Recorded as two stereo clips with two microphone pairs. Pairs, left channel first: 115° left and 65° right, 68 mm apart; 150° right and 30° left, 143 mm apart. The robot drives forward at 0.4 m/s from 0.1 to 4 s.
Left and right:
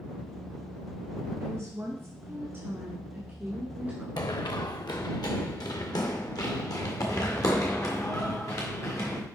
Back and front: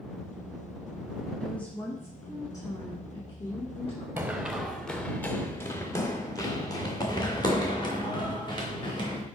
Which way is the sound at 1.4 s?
70° right.